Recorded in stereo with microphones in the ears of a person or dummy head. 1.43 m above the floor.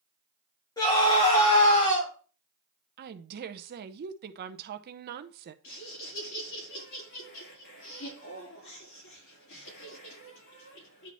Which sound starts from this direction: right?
A woman speaking, at 3.0 s.